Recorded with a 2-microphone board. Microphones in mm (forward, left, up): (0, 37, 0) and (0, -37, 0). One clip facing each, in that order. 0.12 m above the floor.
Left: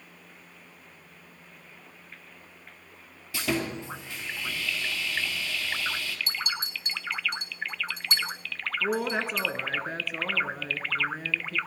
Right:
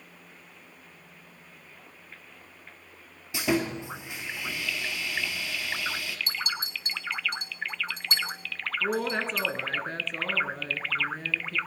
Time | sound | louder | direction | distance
3.3 | sawing | right 3 dB | 15° right (ahead or behind) | 1.8 m
6.3 | a clink | even | 40° right (ahead or behind) | 2.5 m
8.8 | a woman speaking | even | 5° left (ahead or behind) | 1.0 m